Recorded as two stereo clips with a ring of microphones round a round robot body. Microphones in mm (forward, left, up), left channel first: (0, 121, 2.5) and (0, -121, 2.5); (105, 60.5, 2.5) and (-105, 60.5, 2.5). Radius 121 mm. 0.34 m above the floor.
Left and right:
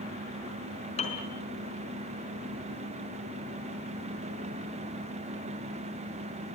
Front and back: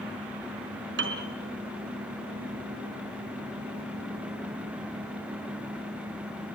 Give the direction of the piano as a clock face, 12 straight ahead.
7 o'clock.